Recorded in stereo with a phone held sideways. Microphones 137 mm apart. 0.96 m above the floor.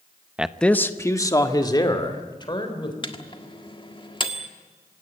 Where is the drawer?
No drawer in this recording.